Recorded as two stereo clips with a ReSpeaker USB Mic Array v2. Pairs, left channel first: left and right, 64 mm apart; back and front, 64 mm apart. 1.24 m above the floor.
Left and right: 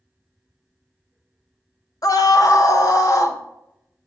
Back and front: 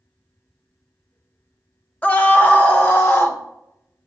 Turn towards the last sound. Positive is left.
turn(degrees=125)